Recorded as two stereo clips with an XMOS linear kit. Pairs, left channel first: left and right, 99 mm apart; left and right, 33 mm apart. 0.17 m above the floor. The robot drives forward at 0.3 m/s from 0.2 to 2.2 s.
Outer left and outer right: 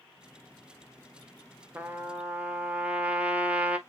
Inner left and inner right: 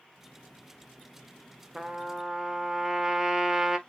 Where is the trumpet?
20° right (ahead or behind), 0.5 m; by 3.8 s 15° right (ahead or behind), 0.6 m.